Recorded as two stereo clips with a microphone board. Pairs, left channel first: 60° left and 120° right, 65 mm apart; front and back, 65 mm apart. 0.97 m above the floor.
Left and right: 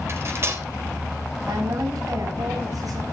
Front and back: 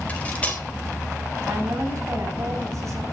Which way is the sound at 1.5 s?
140° right.